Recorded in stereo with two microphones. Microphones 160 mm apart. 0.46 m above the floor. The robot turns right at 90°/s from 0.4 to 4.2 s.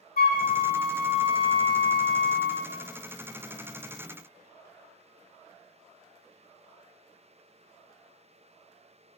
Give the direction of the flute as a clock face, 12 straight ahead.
8 o'clock.